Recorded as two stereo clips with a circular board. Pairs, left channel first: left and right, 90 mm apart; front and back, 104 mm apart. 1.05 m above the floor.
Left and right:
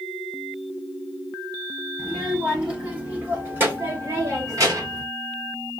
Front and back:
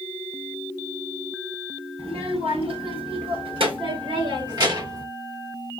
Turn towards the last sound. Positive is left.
turn(degrees=-130)